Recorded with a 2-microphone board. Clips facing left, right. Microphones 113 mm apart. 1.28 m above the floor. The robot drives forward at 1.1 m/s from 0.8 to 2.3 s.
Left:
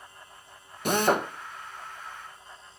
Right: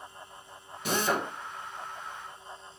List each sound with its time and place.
0.8 s a drill: 55° left (ahead or behind), 1.5 m; by 1.3 s 70° left (ahead or behind), 1.3 m